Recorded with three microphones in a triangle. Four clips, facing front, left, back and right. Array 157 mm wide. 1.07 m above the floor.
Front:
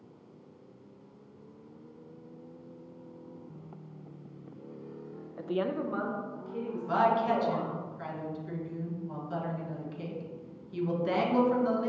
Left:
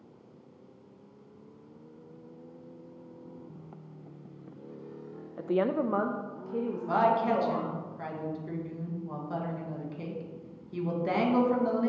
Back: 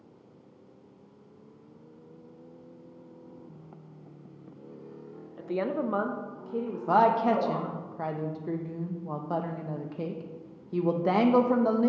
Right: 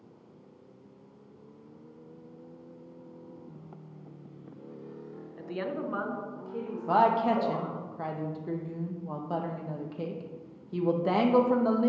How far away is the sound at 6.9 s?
About 1.1 m.